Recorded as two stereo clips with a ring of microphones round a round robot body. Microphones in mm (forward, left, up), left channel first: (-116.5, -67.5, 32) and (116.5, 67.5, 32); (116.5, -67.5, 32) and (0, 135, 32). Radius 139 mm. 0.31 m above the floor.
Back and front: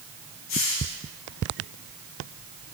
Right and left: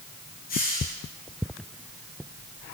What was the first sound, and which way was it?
A hiss, 120° right.